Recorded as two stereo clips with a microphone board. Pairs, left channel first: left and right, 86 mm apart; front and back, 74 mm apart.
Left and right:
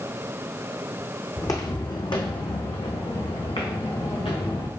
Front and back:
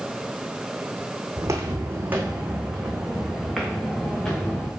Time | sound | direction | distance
1.4 | footsteps | 140° left | 1.4 m